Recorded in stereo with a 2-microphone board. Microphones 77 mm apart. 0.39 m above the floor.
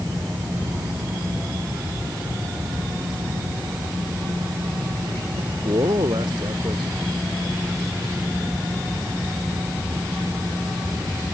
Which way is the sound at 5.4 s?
75° right (ahead or behind).